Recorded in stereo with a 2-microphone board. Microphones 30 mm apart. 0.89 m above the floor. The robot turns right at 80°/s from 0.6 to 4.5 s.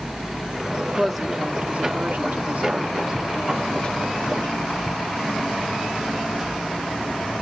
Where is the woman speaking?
150° left, 1.9 m; by 4.7 s 85° left, 1.9 m.